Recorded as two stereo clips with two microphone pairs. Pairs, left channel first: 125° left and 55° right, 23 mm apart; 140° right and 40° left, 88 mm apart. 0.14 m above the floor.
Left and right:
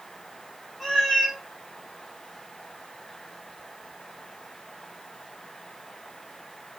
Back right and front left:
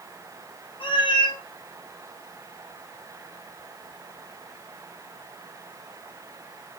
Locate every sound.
0.8 s a cat meowing: 150° right, 2.5 m